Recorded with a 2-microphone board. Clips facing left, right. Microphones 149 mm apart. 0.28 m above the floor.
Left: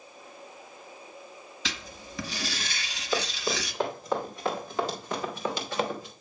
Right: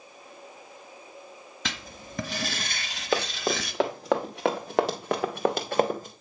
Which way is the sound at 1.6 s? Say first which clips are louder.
Right 2 dB; 50° right (ahead or behind).